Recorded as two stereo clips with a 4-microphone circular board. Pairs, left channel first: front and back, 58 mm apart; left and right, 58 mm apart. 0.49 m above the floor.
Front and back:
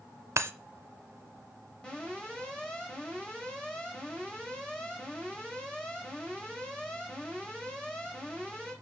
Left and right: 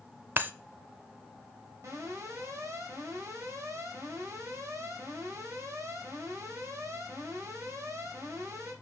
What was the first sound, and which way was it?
Breaking glass, 145° right.